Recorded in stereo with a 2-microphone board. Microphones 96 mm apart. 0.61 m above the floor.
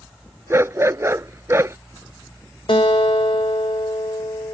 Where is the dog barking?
30° right (ahead or behind).